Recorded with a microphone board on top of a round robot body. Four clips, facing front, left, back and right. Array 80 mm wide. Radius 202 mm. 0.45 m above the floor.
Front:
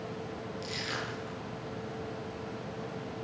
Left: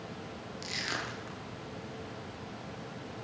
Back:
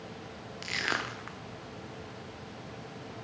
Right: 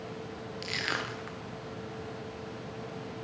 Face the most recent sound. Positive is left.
turn(degrees=-160)